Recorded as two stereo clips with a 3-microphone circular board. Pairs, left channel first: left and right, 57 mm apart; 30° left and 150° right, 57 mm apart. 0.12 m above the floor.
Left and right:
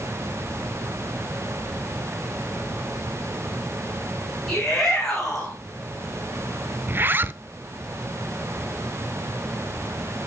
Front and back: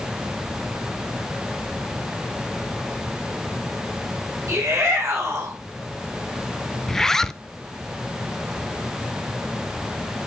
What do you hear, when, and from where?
4.5 s a shout: 175° left, 8 m
6.9 s a zipper: 50° right, 0.6 m